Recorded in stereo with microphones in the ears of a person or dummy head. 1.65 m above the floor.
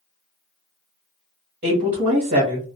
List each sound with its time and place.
1.6 s a woman speaking: 45° right (ahead or behind), 1.0 m